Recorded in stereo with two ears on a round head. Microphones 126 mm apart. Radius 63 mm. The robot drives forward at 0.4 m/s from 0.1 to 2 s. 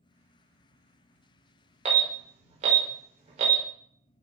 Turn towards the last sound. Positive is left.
turn(degrees=-50)  # may be behind; listen again after turning